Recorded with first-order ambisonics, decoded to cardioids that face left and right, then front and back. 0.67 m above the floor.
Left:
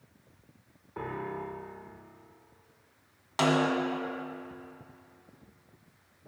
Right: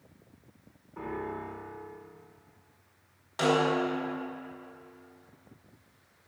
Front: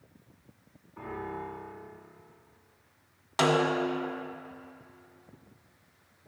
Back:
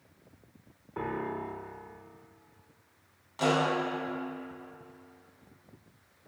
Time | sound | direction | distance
1.0 | a piano | 150° left | 0.7 m
3.4 | a snare drum | 35° left | 1.3 m